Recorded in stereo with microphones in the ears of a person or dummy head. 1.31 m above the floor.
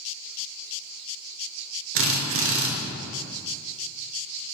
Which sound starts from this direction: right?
A drill, at 1.9 s.